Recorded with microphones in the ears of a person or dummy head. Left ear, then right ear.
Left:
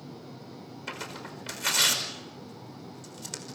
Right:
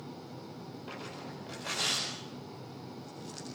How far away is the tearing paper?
About 5 m.